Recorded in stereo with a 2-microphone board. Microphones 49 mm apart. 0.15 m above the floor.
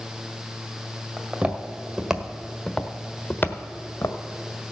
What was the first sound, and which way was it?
Footsteps, 30° right (ahead or behind).